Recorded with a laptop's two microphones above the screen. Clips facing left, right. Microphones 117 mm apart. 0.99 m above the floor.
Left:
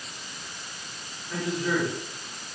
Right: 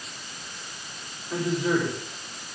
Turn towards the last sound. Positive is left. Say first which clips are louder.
# right 3 dB
turn(degrees=-20)  # may be behind; listen again after turning